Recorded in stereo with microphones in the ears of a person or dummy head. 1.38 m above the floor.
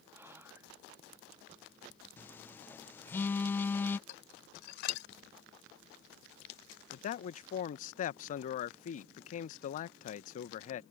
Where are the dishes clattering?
60° left (ahead or behind).